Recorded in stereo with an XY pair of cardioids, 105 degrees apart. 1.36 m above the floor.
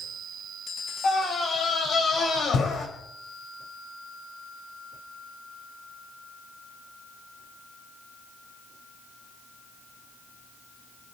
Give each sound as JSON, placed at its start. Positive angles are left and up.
{"t": 1.0, "sound": "a scream", "azimuth_deg": 45, "distance_m": 6.0}